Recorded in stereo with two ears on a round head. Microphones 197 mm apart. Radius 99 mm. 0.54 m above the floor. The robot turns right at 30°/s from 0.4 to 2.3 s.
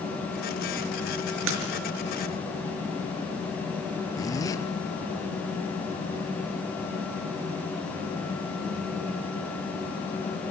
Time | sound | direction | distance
1.5 | a splash | 70° right (ahead or behind) | 6 m
4.2 | a zipper | 15° left (ahead or behind) | 2.5 m